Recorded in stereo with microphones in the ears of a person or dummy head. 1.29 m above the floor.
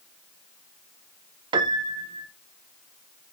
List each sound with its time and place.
1.5 s a piano: 25° right (ahead or behind), 0.7 m